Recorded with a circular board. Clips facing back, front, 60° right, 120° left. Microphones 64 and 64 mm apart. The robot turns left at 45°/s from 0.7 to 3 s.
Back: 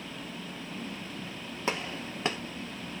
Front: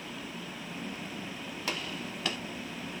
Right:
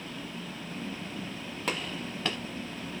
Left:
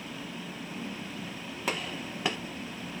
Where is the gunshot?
160° right, 0.8 m; by 2.4 s 170° left, 0.8 m.